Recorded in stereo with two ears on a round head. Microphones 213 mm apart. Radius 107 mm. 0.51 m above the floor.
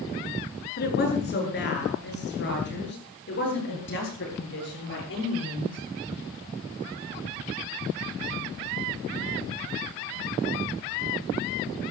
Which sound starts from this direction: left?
A woman speaking, at 0.8 s.